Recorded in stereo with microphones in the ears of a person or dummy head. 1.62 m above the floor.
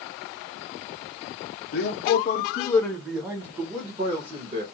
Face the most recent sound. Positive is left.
turn(degrees=-40)  # may be behind; listen again after turning